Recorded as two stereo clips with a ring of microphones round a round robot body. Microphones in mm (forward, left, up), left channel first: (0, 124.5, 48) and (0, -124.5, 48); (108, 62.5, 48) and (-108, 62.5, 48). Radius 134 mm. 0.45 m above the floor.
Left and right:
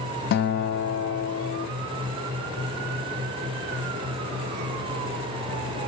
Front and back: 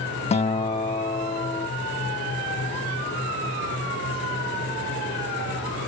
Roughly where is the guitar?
Ahead left.